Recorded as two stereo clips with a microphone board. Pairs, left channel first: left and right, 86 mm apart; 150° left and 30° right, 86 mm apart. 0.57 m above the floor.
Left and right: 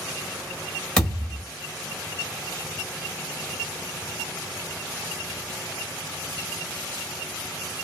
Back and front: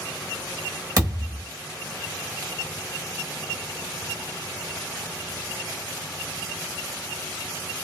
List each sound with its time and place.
1.0 s a thud: 10° left, 1.7 m